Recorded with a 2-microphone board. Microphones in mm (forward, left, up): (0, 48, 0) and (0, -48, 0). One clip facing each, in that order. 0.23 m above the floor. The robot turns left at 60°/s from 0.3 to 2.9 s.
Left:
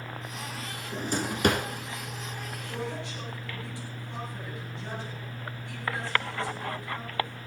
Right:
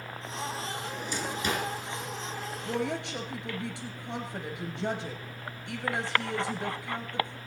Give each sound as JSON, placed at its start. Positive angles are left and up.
{"t": 0.9, "sound": "a drawer", "side_deg": 35, "distance_m": 1.6}
{"t": 2.7, "sound": "a woman speaking", "side_deg": -60, "distance_m": 3.0}